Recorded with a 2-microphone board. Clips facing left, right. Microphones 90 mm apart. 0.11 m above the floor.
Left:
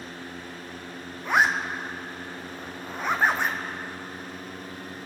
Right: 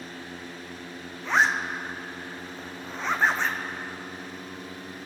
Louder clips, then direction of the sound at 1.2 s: Left 1 dB; 15° left (ahead or behind).